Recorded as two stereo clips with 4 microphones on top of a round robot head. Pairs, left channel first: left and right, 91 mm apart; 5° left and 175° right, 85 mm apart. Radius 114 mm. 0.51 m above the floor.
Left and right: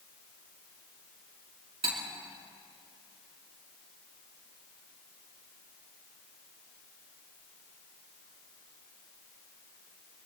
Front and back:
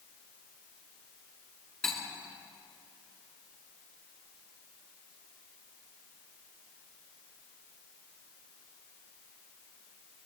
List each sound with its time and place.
1.8 s cutlery clinking: 80° right, 4 m